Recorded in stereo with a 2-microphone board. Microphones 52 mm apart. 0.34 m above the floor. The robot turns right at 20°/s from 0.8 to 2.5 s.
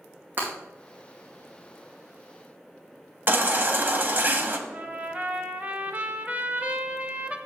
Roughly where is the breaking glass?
Right.